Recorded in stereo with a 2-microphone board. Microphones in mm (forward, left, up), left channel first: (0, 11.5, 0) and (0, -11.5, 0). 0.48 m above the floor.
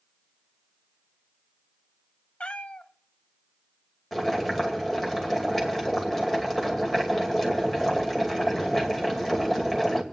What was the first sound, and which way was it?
A cat meowing, 55° left (ahead or behind).